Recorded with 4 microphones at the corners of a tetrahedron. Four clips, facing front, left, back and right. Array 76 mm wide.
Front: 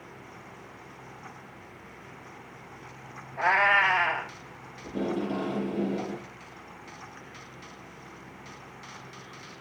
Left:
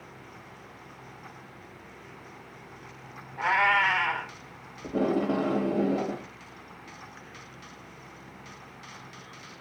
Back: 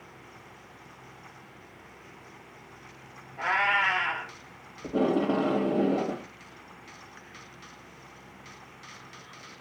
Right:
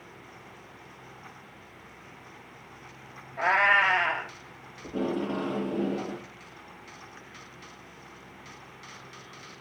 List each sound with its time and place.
3.4 s a cat meowing: 55° right, 3.5 m
4.8 s tape being pulled: 165° left, 2 m